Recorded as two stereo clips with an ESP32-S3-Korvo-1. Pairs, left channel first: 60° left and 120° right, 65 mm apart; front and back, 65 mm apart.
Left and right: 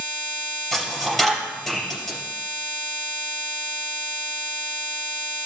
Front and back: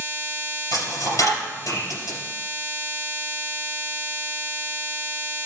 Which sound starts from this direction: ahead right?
A dropped coin, at 0.7 s.